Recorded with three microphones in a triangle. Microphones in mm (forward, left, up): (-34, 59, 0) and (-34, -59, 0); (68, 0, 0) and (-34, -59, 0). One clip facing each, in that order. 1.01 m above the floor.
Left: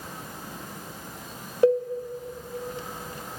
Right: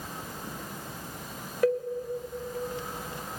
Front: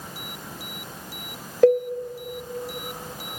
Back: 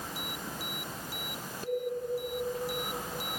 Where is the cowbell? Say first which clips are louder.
Left 5 dB, front 17 dB; 25° left, 1.9 m.